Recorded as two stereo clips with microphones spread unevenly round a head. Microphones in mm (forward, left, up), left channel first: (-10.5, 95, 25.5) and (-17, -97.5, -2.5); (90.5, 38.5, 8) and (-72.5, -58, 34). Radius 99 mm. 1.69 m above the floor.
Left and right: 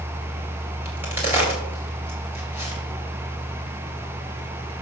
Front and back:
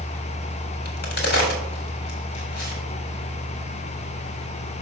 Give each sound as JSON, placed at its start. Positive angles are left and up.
{"t": 0.8, "sound": "a crack", "azimuth_deg": -10, "distance_m": 3.0}